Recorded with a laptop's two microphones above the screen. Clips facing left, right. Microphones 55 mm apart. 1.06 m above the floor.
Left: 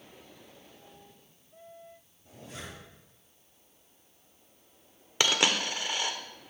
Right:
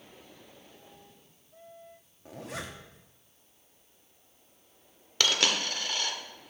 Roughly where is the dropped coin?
Centre.